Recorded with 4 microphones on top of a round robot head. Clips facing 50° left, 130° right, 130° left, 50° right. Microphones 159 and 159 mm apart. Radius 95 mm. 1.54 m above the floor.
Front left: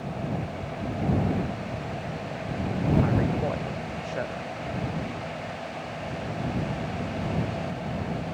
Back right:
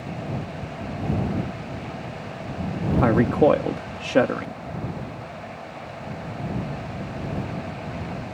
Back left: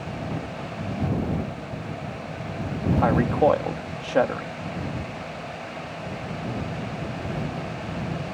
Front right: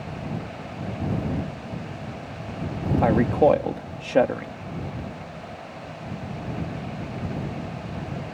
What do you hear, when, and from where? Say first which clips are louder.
3.0 s a man speaking: back right 9 dB, front right 2 dB; 120° right